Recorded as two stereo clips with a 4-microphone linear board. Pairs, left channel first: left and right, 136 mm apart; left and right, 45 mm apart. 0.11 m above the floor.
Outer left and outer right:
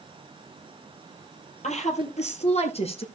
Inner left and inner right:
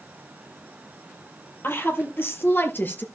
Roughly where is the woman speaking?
Left.